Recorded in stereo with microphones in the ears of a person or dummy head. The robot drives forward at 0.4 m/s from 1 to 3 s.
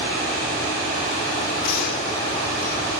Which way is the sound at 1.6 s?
65° left (ahead or behind).